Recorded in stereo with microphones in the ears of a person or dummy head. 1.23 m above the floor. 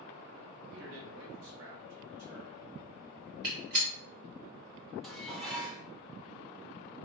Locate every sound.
0.7 s a man speaking: 70° right (ahead or behind), 0.9 m; by 2.6 s 40° right (ahead or behind), 1.1 m
3.4 s a gunshot: 50° right (ahead or behind), 1.3 m
5.0 s dishes clattering: centre (ahead or behind), 0.5 m